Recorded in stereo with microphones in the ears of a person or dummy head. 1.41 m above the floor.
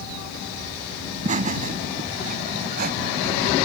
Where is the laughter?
40° right (ahead or behind); by 3.5 s 50° right (ahead or behind).